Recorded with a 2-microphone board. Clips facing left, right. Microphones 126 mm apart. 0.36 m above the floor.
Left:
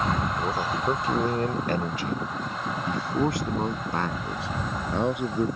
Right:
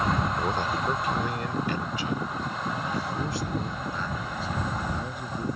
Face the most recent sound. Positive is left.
turn(degrees=75)  # may be behind; listen again after turning